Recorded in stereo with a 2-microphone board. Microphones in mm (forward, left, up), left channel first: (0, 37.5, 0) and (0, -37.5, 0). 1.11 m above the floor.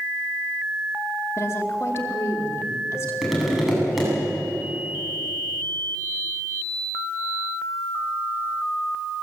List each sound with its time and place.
1.4 s a woman speaking: 40° left (ahead or behind), 3 m
3.2 s tapping: centre (ahead or behind), 8.5 m